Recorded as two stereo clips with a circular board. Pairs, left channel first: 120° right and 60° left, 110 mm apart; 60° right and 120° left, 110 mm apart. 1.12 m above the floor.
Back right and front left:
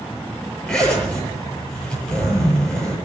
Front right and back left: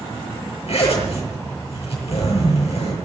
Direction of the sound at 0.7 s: 35° right.